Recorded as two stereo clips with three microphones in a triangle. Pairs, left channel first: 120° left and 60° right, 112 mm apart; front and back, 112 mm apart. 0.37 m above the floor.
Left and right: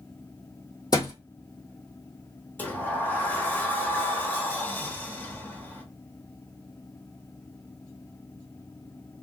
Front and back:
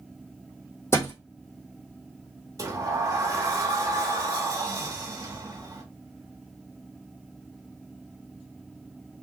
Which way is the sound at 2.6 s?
175° left.